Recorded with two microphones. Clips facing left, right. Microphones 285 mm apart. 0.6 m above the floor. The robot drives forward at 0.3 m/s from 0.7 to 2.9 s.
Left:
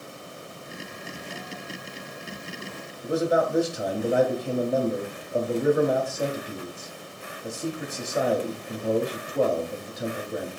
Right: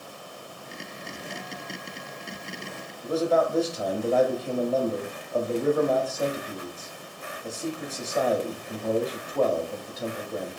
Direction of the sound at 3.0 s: 15° left (ahead or behind).